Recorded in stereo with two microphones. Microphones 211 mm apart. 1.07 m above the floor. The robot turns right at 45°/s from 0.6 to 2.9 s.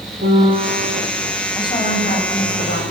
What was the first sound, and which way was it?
A piano, 60° right (ahead or behind).